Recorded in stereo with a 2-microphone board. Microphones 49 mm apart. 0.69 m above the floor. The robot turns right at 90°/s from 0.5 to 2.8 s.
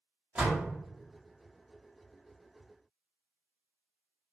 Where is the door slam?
30° right (ahead or behind), 1.0 m; by 0.7 s 45° right (ahead or behind), 1.0 m.